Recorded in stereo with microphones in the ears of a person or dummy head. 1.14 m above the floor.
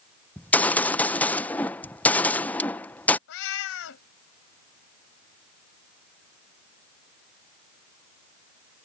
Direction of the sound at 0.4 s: 10° left (ahead or behind).